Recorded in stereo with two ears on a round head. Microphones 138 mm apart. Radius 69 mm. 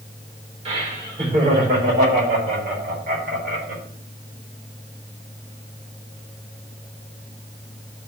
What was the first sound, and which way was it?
Laughter, 40° right (ahead or behind).